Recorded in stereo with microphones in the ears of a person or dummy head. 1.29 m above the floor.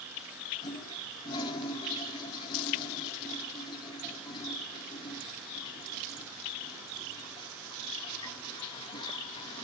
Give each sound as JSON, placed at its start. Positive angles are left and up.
{"t": 0.6, "sound": "a toilet flushing", "side_deg": 30, "distance_m": 1.5}